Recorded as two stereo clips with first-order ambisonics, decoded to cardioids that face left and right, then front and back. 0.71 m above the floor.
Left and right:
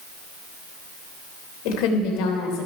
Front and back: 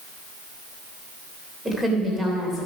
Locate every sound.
1.6 s a woman speaking: 95° left, 3 m; by 2.7 s 90° left, 2.5 m